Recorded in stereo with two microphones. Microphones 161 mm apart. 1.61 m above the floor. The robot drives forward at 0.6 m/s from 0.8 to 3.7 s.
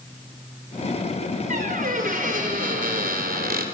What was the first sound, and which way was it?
A squeak, 55° right (ahead or behind).